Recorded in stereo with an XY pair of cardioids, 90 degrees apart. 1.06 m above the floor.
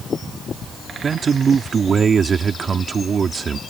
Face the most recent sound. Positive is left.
turn(degrees=-45)